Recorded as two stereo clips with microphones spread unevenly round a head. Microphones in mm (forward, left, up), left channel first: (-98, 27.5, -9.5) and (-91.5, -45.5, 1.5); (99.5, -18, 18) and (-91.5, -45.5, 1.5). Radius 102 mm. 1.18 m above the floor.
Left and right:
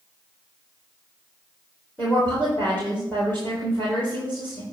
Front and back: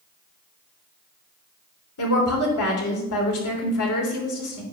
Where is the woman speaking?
15° left, 3.5 m.